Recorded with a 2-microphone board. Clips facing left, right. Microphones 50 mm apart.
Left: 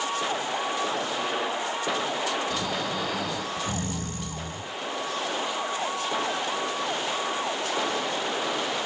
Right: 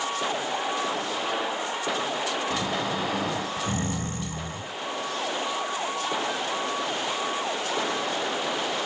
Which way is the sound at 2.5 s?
30° right (ahead or behind).